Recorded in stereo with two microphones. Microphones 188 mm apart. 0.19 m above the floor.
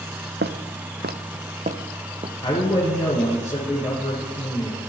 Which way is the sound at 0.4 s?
75° right (ahead or behind).